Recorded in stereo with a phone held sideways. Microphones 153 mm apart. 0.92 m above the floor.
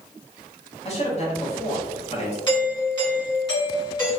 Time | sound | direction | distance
0.8 | a man speaking | 40° left (ahead or behind) | 1.2 m
2.5 | a doorbell | 30° left (ahead or behind) | 1.7 m